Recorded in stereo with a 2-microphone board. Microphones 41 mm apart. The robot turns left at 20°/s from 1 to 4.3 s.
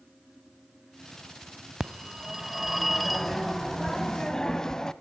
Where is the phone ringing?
155° right, 0.8 m; by 4.9 s 155° left, 0.8 m.